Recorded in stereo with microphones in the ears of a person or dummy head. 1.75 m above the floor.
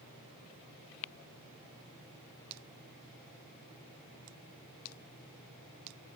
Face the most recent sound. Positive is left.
No sound to turn to.